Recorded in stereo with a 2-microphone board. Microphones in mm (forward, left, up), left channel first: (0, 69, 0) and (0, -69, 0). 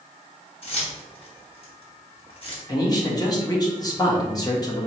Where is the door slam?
No door slam in this recording.